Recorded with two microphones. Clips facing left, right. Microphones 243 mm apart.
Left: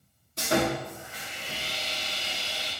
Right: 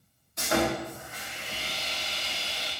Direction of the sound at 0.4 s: 30° left (ahead or behind).